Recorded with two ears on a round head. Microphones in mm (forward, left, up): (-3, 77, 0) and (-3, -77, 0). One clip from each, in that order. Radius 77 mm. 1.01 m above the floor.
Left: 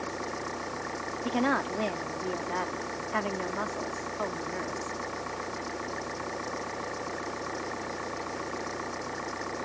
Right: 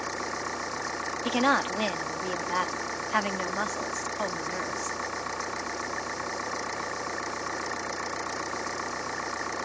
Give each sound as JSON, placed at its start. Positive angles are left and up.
{"t": 0.0, "sound": "an engine running", "side_deg": -35}
{"t": 1.2, "sound": "a woman speaking", "side_deg": -75}